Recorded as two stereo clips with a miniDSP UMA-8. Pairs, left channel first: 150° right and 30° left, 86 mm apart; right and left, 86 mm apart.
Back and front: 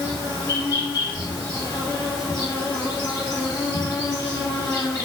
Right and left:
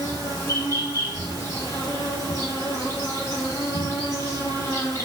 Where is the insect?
130° right, 1.9 m.